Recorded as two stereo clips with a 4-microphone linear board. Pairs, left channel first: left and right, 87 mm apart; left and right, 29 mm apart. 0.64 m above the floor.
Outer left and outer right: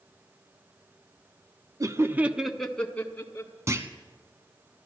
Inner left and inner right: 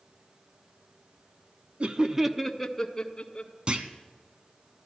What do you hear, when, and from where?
1.8 s laughter: 45° right (ahead or behind), 0.9 m; by 3.5 s 25° left (ahead or behind), 1.8 m
3.7 s a clunk: 35° right (ahead or behind), 1.0 m